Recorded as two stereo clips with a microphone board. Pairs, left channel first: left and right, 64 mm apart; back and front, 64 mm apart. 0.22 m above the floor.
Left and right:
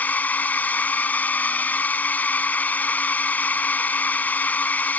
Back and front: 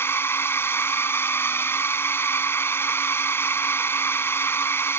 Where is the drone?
145° left.